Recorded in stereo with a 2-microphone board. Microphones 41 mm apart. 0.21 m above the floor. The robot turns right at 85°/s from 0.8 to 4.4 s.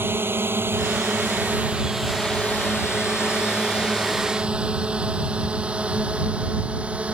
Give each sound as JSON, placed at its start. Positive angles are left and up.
{"t": 0.0, "sound": "a drone", "side_deg": -65}